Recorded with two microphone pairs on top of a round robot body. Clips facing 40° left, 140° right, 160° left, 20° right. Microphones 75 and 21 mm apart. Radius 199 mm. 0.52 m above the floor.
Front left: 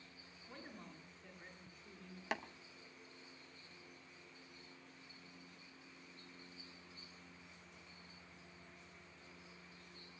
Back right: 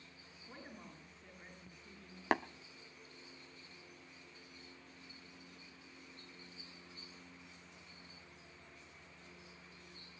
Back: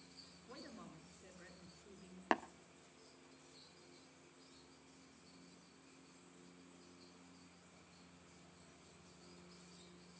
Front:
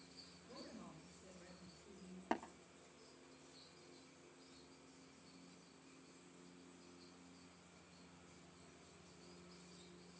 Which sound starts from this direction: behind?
Tapping, at 2.3 s.